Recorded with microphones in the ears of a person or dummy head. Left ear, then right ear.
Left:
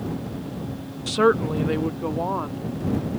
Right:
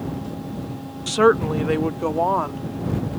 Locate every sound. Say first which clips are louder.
1.1 s a woman speaking: right 3 dB; 5° right (ahead or behind); by 2.6 s 30° right (ahead or behind)